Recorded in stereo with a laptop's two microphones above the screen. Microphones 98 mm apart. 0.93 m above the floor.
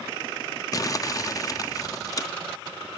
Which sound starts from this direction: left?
Crumpling, at 0.7 s.